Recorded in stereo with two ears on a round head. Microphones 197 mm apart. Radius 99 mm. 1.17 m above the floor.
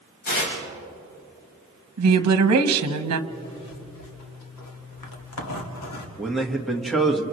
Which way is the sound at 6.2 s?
Centre (ahead or behind).